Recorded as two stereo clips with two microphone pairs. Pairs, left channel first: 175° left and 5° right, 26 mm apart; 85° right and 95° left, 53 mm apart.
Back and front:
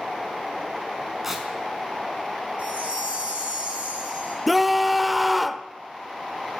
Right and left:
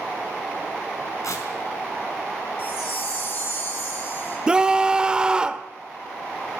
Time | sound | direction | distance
1.2 | tearing paper | 85° right | 4.5 m
2.6 | a chime | 45° right | 9.5 m
4.5 | a scream | 70° left | 1.0 m